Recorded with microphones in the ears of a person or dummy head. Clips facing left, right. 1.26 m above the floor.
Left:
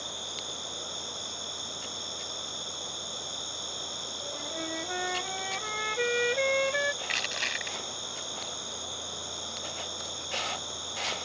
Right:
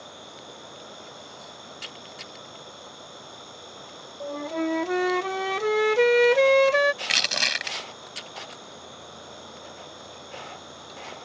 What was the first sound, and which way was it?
An insect, 70° left (ahead or behind).